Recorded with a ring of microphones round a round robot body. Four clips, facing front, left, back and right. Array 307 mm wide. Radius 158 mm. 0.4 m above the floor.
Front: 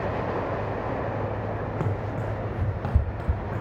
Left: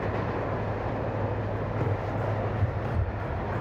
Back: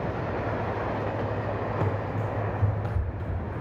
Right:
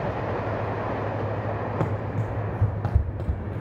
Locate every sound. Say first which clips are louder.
1.8 s running footsteps: right 1 dB, back 1 dB; 70° right, 1.3 m; by 3.6 s 30° right, 0.6 m